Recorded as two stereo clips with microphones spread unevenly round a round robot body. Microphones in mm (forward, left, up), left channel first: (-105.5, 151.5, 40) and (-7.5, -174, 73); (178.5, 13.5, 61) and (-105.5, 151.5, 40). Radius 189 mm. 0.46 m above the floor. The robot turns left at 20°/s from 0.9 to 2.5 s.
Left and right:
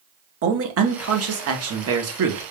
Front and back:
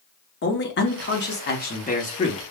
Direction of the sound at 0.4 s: 55° right.